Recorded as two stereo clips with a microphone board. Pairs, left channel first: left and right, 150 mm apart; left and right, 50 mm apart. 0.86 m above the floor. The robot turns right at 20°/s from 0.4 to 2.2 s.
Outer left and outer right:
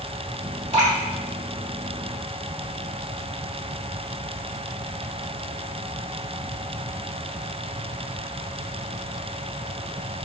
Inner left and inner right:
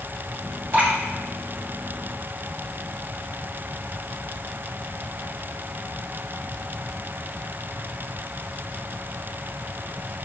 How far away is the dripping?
About 1.9 m.